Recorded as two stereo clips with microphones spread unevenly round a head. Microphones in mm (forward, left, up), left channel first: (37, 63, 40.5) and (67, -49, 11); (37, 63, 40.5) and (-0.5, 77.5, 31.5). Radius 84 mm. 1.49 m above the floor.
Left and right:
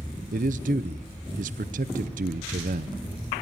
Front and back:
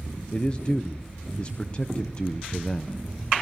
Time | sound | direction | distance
0.3 | a man speaking | 100° right | 0.5 m